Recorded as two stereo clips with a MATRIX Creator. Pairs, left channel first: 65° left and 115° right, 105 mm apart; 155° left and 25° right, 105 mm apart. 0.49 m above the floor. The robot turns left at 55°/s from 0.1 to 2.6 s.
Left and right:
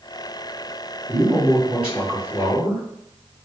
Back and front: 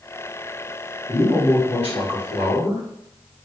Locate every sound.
1.1 s a man speaking: 145° right, 1.4 m; by 2.8 s 130° left, 1.4 m